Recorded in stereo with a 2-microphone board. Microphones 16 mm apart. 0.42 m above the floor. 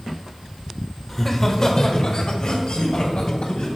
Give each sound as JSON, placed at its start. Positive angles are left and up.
{"t": 1.1, "sound": "laughter", "side_deg": 10, "distance_m": 1.0}